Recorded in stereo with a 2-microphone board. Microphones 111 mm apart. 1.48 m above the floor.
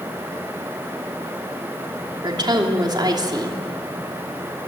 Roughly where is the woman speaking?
Right.